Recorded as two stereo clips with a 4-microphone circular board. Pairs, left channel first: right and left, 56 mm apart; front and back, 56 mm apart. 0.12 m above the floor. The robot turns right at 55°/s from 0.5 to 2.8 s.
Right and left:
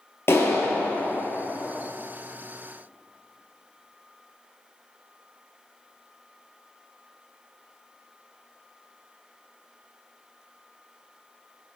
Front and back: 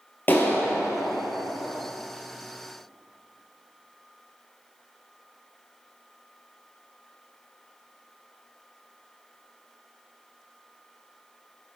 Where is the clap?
50° right, 1.8 m; by 1.2 s 10° right, 1.8 m.